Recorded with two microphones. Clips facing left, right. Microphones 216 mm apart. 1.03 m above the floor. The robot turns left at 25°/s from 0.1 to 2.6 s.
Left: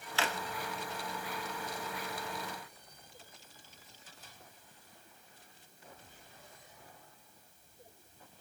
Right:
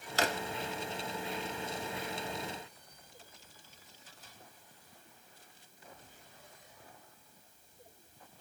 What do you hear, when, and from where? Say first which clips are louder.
0.2 s a drawer: right 4 dB; 40° right (ahead or behind), 0.7 m